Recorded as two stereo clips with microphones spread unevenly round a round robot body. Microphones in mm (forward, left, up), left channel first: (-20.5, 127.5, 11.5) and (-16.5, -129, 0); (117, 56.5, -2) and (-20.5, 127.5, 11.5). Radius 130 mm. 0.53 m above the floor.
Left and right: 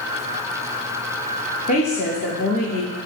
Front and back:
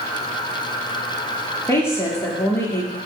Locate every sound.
1.7 s a woman speaking: 35° left, 1.0 m